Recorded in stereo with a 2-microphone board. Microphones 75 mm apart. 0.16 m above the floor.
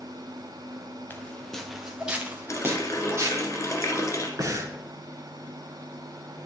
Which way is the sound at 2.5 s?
45° left (ahead or behind).